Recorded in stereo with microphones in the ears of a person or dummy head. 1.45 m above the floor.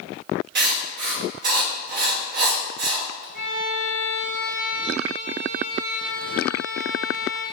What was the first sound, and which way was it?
Writing, 65° right (ahead or behind).